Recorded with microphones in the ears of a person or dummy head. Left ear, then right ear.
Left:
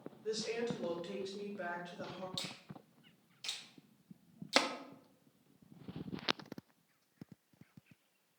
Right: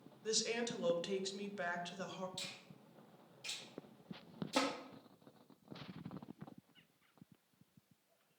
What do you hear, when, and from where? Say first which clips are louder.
0.2 s a woman speaking: even; 35° right (ahead or behind), 0.7 m
2.4 s a finger snap: left 4 dB; 40° left (ahead or behind), 1.6 m
4.6 s tapping: left 5 dB; 55° left (ahead or behind), 0.6 m